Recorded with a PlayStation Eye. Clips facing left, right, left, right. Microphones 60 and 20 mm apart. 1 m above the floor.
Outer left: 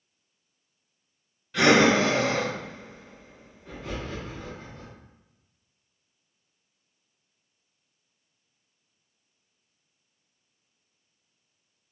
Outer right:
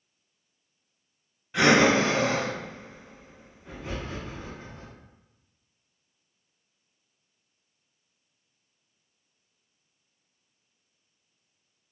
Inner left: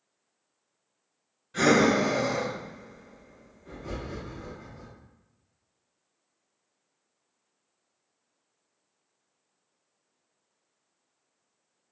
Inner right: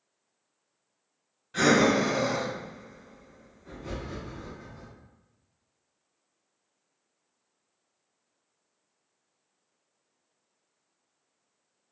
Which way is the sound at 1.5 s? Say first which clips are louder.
Outer left 1 dB, even; 20° right (ahead or behind).